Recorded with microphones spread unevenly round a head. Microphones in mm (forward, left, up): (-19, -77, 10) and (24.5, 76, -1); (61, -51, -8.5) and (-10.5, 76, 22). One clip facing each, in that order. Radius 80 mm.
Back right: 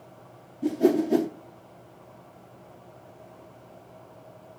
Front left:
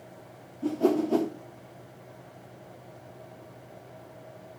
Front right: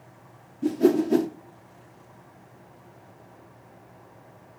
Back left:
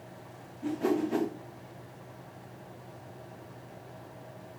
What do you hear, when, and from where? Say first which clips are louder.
0.6 s a whoosh: back right 3 dB, front right 8 dB; 55° right, 0.7 m